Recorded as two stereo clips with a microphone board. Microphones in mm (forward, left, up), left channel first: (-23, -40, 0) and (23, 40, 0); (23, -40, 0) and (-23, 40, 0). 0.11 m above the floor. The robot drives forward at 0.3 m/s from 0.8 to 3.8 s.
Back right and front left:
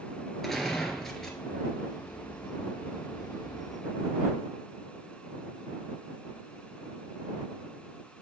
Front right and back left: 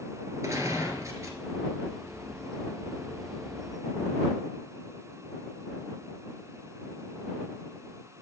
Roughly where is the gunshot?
Behind left.